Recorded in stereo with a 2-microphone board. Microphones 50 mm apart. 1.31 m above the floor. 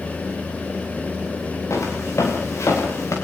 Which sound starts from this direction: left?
Footsteps, at 1.7 s.